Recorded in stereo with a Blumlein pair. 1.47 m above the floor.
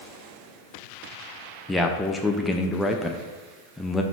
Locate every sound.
1.7 s a man speaking: 5° left, 0.6 m